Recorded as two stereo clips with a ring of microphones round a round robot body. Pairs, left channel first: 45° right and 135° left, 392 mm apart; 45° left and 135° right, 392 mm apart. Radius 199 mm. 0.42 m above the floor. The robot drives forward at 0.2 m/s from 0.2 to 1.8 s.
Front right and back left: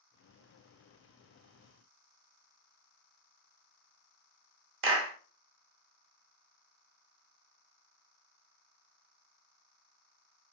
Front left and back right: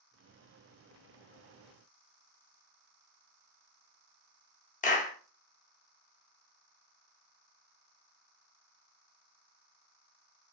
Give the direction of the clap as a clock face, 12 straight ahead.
9 o'clock.